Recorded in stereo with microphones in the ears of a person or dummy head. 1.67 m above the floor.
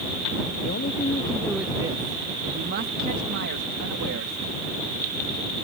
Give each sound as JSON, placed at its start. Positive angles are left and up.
{"t": 0.6, "sound": "a man speaking", "side_deg": 50}